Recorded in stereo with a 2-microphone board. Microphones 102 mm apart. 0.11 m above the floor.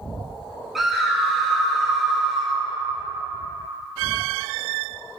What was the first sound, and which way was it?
A scream, centre (ahead or behind).